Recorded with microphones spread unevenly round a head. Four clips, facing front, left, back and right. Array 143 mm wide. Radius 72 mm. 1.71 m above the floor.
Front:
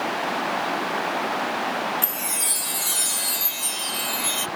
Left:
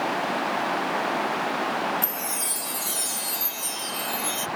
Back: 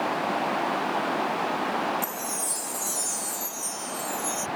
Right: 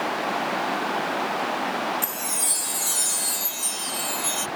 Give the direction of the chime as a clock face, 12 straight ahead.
1 o'clock.